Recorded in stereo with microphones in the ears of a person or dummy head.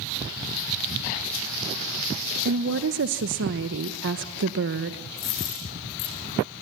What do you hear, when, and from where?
2.5 s a woman speaking: 55° right (ahead or behind), 1.0 m
5.2 s a dropped coin: 55° left (ahead or behind), 9.5 m